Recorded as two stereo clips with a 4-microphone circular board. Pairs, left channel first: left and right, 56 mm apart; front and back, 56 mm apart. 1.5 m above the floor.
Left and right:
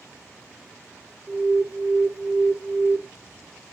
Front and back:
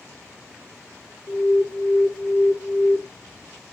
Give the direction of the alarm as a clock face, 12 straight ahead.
1 o'clock.